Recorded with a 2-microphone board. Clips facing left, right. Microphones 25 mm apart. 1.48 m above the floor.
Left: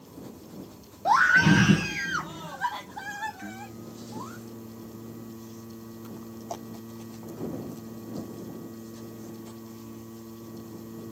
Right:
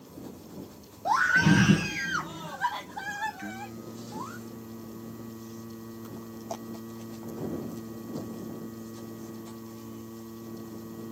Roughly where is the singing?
Centre.